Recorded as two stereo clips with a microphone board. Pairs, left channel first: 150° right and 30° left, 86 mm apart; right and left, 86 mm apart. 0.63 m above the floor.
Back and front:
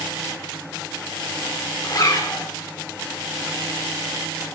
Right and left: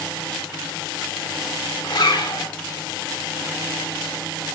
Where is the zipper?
110° right, 1.3 m.